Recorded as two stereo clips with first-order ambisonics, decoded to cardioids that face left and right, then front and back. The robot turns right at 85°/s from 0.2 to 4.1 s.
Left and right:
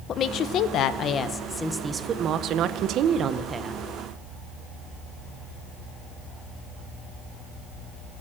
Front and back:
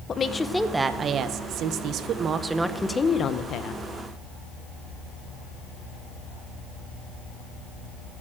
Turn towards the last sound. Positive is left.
turn(degrees=25)